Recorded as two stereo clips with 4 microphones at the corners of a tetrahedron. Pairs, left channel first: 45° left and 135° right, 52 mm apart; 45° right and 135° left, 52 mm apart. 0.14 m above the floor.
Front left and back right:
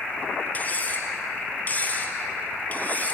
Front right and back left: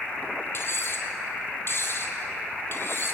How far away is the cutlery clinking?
About 2.5 m.